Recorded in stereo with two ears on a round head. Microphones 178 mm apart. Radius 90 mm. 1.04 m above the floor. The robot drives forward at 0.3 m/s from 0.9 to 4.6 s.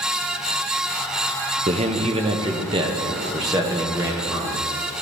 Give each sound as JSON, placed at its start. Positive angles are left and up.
{"t": 1.7, "sound": "a man speaking", "side_deg": -35, "distance_m": 0.7}